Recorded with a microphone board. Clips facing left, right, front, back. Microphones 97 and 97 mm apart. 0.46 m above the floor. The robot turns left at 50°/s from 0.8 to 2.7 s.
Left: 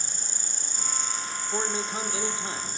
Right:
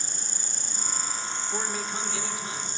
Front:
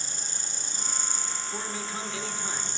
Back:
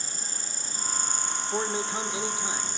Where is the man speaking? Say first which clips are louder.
Left 3 dB, back 7 dB; 160° left, 0.9 m; by 2.8 s 100° left, 0.9 m.